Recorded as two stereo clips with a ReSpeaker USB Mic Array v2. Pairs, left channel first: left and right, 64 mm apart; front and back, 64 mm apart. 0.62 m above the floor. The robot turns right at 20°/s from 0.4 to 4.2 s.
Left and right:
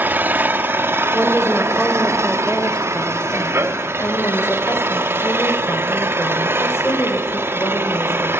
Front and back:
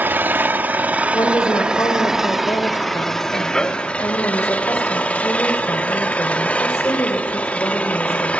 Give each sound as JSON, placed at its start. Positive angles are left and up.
{"t": 0.0, "sound": "an engine running", "azimuth_deg": -135, "distance_m": 1.1}
{"t": 1.1, "sound": "a woman speaking", "azimuth_deg": -15, "distance_m": 2.0}